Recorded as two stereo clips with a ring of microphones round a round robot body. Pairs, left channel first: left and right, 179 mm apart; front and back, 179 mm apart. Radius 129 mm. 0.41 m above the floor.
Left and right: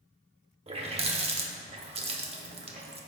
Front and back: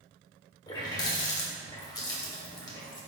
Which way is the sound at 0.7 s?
60° right.